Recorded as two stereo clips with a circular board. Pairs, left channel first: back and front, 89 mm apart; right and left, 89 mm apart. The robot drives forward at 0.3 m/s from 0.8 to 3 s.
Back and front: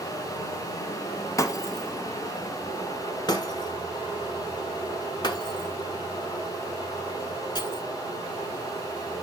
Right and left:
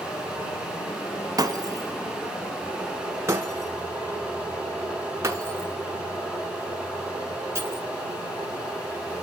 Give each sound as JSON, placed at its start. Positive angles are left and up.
{"t": 0.0, "sound": "running water", "azimuth_deg": -145, "distance_m": 3.0}
{"t": 1.4, "sound": "breaking glass", "azimuth_deg": 130, "distance_m": 0.9}